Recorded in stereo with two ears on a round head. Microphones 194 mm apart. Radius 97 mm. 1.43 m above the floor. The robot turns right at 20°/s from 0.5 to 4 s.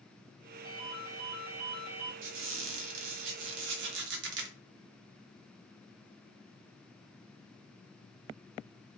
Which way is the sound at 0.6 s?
45° left (ahead or behind).